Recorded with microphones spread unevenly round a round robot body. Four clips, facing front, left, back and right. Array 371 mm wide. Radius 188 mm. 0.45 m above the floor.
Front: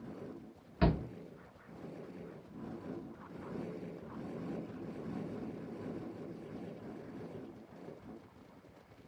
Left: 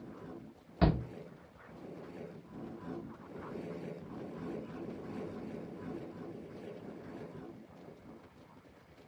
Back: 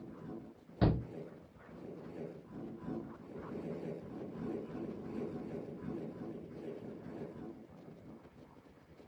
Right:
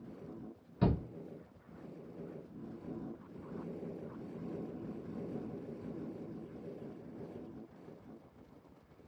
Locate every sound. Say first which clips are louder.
0.8 s a shout: left 3 dB, front 1 dB; 110° left, 1.4 m